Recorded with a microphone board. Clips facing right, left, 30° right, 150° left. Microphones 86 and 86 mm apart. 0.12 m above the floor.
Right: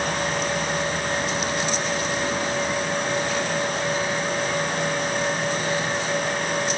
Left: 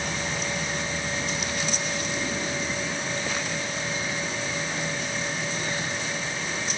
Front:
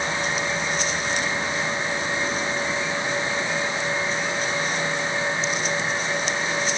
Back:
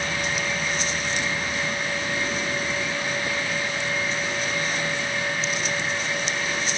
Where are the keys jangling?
No keys jangling in this recording.